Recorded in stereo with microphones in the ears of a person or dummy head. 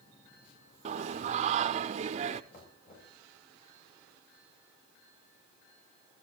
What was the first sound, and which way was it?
Singing, 40° right (ahead or behind).